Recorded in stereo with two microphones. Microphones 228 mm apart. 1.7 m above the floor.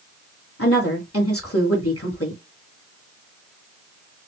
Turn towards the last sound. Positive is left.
turn(degrees=80)